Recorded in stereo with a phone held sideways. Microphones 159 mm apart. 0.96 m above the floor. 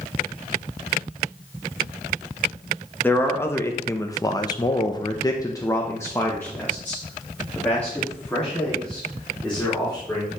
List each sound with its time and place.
3.0 s a man speaking: 15° left (ahead or behind), 1.3 m; by 10.3 s 5° left (ahead or behind), 3.5 m